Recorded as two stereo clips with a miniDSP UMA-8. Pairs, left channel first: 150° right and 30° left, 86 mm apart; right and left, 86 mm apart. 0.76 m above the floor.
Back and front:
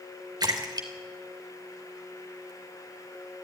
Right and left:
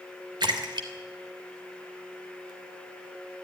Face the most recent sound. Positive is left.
turn(degrees=65)